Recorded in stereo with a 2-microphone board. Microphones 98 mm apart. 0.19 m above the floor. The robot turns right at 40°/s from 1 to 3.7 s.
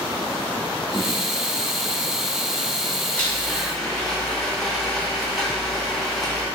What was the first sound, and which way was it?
A blender, 15° left (ahead or behind).